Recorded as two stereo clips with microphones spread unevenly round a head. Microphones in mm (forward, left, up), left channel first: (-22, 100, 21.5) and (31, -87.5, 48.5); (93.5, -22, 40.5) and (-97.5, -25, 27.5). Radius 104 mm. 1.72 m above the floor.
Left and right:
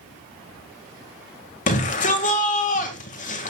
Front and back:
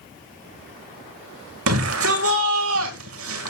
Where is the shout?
160° left, 2 m.